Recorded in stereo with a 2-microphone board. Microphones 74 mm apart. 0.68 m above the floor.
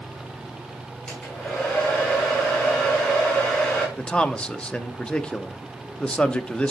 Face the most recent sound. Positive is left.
turn(degrees=15)  # may be behind; listen again after turning